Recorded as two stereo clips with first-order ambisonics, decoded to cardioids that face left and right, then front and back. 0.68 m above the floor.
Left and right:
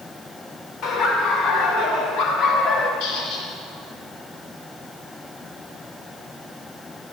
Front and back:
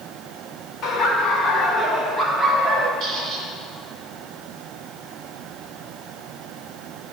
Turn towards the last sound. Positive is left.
turn(degrees=110)